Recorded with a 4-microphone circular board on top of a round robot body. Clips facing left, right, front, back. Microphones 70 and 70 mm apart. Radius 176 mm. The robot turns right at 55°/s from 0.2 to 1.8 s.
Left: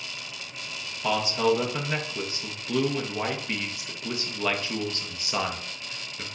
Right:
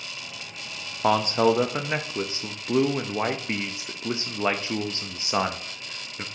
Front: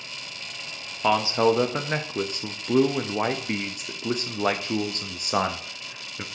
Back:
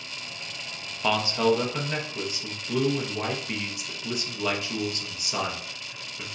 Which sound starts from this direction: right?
A man speaking, at 1.0 s.